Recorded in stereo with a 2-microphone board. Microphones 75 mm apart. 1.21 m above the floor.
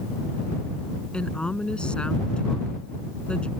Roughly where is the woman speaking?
Centre.